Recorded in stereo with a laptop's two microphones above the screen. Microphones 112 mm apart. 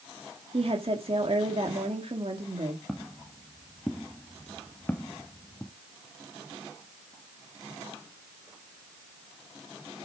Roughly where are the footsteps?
Centre.